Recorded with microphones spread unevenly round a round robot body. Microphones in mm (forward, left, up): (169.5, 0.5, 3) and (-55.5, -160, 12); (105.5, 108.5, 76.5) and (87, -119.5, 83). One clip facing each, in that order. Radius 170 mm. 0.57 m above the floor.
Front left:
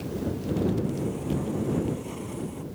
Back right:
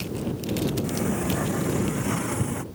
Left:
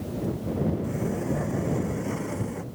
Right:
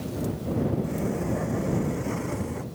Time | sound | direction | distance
0.8 | a sliding door | 175° left | ?